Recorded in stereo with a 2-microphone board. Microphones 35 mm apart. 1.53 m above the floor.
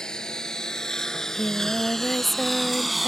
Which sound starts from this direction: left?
A lawn mower, at 0.0 s.